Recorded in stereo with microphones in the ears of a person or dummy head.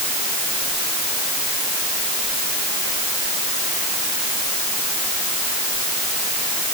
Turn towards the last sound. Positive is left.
No sound to turn to.